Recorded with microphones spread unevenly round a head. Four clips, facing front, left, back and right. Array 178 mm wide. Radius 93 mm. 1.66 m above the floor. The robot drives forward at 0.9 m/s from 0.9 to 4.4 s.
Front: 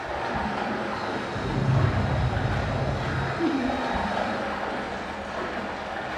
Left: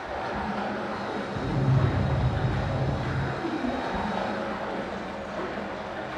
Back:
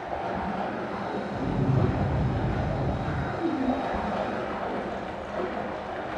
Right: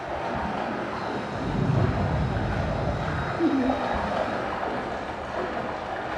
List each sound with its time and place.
0.0 s running water: 30° right, 4 m; by 6.2 s 90° right, 2 m
1.3 s an explosion: 130° right, 2.5 m; by 3.3 s 150° right, 4 m
3.4 s laughter: 55° right, 1.1 m; by 3.8 s 75° right, 0.9 m